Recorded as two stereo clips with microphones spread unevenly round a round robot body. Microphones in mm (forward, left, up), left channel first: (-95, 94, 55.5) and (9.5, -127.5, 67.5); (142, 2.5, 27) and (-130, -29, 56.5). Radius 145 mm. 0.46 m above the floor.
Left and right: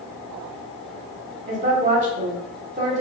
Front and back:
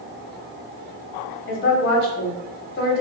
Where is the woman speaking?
15° right, 1.1 m.